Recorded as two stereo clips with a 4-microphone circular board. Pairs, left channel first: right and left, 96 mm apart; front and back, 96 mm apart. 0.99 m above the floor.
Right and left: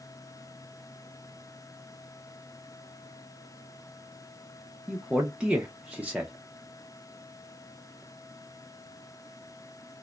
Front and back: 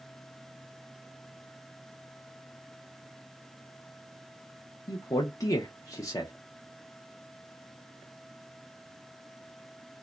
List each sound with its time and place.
4.9 s a man speaking: 20° left, 0.5 m